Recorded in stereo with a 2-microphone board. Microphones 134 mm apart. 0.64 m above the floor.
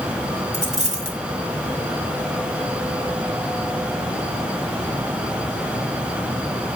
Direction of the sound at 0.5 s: 65° right (ahead or behind).